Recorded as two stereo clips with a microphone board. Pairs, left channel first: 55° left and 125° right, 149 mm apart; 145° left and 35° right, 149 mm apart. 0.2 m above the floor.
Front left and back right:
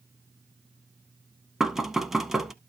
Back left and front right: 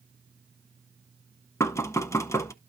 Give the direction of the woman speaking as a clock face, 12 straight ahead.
I don't hear a woman speaking.